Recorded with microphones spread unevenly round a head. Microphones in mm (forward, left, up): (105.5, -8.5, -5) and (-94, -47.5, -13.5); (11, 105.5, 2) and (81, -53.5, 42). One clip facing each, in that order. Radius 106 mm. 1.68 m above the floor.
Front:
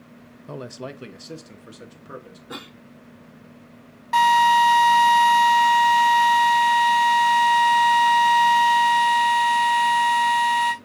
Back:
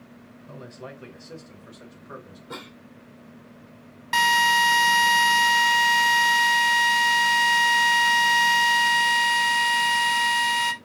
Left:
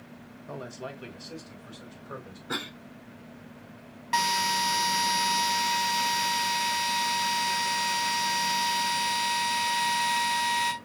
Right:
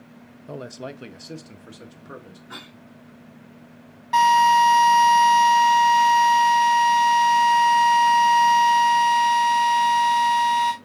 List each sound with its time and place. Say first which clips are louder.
0.5 s a man speaking: front 7 dB, right 4 dB; 5° right, 0.5 m; by 2.4 s 45° right, 1.9 m
2.5 s a cough: front 2 dB, left 10 dB; 85° left, 0.8 m
4.1 s a drill: front 7 dB, right 12 dB; 165° right, 1.0 m